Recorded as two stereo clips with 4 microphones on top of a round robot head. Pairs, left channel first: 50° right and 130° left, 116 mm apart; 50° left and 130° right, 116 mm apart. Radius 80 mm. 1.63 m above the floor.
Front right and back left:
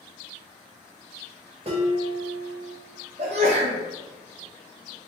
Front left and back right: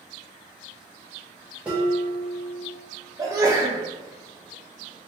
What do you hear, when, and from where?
1.6 s dishes clattering: 150° left, 0.7 m
3.2 s a sneeze: 165° left, 0.6 m